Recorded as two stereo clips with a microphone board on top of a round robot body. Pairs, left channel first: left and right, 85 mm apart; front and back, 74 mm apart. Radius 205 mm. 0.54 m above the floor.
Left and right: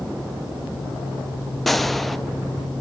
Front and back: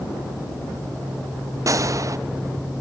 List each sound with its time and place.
1.7 s a gunshot: 175° left, 0.8 m